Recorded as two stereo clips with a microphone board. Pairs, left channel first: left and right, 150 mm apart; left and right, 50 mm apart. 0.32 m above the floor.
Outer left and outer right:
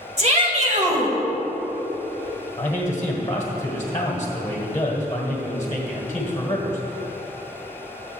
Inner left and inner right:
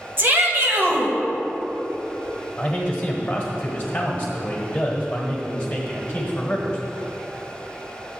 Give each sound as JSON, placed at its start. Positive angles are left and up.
{"t": 0.2, "sound": "a shout", "side_deg": -50, "distance_m": 1.9}
{"t": 2.6, "sound": "a man speaking", "side_deg": 25, "distance_m": 1.4}